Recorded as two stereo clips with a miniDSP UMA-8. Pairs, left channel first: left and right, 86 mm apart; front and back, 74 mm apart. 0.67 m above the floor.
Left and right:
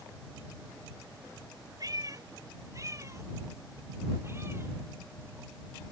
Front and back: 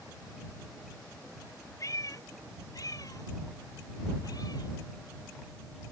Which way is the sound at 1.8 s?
40° right.